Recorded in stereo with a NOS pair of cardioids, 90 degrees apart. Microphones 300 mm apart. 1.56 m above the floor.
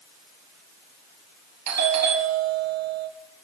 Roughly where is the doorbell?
Right.